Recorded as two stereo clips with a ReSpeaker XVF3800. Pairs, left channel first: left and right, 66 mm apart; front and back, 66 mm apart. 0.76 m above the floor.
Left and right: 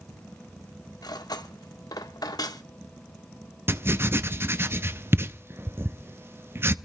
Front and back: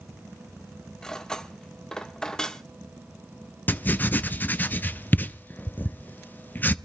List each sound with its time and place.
1.0 s cutlery clinking: 80° left, 1.0 m
3.7 s writing: 55° right, 0.5 m